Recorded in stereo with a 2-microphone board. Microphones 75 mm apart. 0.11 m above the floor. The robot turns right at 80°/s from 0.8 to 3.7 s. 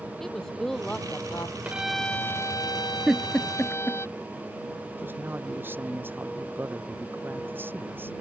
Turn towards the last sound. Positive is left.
turn(degrees=-30)  # may be behind; listen again after turning